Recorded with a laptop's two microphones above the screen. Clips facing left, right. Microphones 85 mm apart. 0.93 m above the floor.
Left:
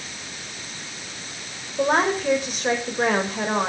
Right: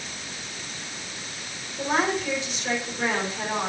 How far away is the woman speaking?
About 4.5 m.